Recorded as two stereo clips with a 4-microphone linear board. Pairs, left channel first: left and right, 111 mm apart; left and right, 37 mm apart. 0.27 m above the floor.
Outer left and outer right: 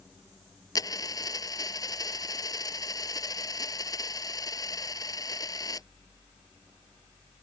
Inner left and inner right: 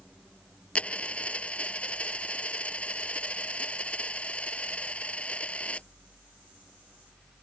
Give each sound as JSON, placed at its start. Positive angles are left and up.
{"t": 0.8, "sound": "a dropped coin", "side_deg": 35}